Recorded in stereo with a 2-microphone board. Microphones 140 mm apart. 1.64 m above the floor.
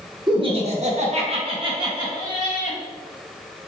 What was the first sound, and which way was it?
Laughter, 30° right (ahead or behind).